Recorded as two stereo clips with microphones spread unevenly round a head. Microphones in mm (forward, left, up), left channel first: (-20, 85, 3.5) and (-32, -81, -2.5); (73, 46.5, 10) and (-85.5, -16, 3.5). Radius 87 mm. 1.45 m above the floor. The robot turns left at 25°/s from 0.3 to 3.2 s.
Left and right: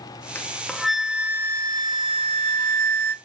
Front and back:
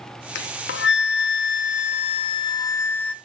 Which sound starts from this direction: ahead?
A flute, at 0.3 s.